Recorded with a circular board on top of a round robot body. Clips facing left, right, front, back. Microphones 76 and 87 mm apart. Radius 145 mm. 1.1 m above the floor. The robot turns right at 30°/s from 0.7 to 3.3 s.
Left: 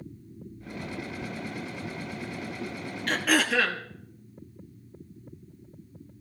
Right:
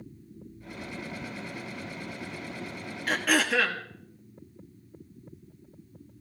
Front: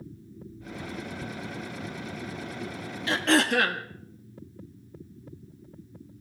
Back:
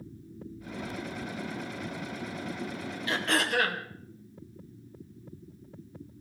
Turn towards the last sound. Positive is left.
turn(degrees=0)